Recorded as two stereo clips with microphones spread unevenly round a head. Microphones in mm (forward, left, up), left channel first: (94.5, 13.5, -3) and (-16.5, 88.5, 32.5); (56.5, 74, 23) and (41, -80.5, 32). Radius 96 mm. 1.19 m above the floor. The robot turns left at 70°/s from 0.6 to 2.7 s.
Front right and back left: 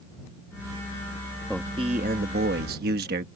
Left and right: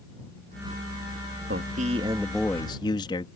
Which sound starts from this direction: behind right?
A man speaking, at 1.5 s.